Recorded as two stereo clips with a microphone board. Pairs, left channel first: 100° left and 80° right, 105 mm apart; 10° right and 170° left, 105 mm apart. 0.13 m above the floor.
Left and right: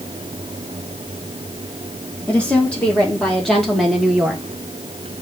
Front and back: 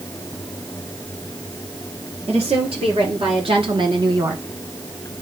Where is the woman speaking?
175° left, 3 m; by 4.4 s 150° right, 1.3 m.